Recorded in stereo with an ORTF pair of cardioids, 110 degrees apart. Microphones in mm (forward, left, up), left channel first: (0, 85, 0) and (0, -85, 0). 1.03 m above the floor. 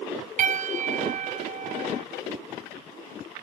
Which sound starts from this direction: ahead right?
A piano, at 0.4 s.